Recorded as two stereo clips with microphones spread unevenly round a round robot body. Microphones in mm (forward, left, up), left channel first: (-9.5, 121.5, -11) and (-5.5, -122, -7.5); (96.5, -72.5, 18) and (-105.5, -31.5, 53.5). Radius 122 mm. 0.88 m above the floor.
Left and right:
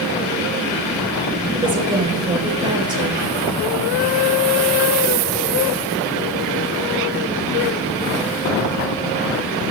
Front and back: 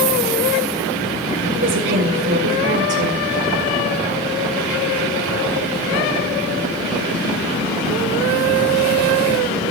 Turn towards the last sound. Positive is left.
turn(degrees=-160)